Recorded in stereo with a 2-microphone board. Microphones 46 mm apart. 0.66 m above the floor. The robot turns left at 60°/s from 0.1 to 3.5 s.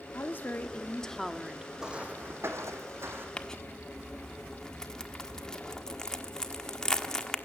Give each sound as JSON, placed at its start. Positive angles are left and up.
{"t": 0.1, "sound": "a woman speaking", "azimuth_deg": 75, "distance_m": 1.3}
{"t": 1.8, "sound": "footsteps", "side_deg": -10, "distance_m": 2.5}
{"t": 3.4, "sound": "crumpling", "side_deg": 25, "distance_m": 1.4}